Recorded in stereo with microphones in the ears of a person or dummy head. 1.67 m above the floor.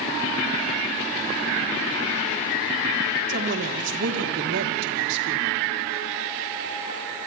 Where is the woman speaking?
60° right (ahead or behind), 4.5 m.